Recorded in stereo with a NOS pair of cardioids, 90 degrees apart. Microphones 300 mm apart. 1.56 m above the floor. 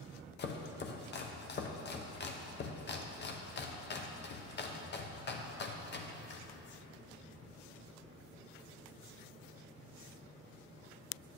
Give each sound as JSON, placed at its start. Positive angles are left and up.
{"t": 0.4, "sound": "chopping", "azimuth_deg": 35, "distance_m": 0.8}